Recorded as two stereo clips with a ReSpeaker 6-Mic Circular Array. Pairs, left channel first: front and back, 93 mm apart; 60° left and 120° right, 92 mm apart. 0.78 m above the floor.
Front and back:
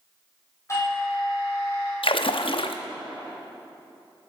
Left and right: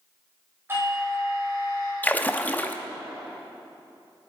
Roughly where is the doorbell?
Ahead right.